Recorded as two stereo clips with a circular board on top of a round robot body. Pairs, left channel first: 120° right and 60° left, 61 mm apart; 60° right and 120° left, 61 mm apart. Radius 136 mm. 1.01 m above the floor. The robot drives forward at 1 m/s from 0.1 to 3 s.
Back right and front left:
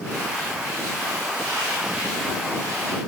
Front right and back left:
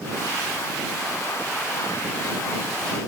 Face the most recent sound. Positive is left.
No sound to turn to.